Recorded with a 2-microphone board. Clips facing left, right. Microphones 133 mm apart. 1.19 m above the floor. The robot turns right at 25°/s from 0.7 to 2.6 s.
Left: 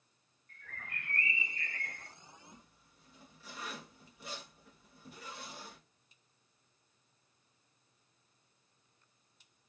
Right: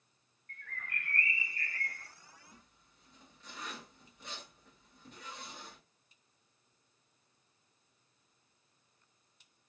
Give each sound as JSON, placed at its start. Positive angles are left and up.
{"t": 0.5, "sound": "a bird", "azimuth_deg": -70, "distance_m": 0.8}
{"t": 2.5, "sound": "a zipper", "side_deg": 5, "distance_m": 1.0}